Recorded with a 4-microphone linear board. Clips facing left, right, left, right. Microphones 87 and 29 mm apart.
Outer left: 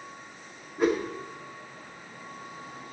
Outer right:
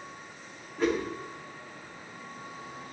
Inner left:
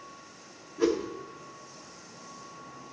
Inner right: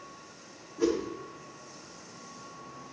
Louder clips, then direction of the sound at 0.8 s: Outer left 3 dB, inner left 1 dB; 15° left (ahead or behind).